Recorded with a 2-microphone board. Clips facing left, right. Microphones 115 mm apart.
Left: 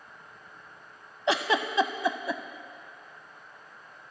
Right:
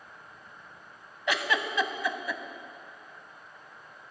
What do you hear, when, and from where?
1.3 s a giggle: 30° left (ahead or behind), 0.5 m